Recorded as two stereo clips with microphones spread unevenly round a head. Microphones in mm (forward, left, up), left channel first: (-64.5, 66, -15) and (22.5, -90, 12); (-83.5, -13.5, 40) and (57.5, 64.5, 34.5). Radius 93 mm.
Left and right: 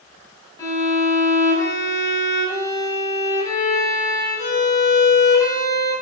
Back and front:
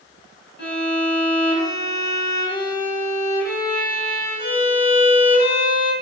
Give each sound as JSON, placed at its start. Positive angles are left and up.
{"t": 0.6, "sound": "a violin", "azimuth_deg": -170, "distance_m": 3.5}